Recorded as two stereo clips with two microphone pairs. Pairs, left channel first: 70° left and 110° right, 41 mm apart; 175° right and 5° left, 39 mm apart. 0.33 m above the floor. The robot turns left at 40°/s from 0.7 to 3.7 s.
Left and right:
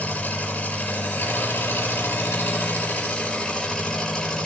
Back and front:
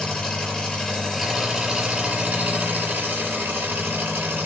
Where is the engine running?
110° left, 7 m; by 4.5 s 10° right, 7 m.